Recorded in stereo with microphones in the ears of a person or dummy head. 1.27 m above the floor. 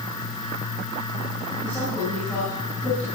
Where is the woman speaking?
15° left (ahead or behind), 6 m.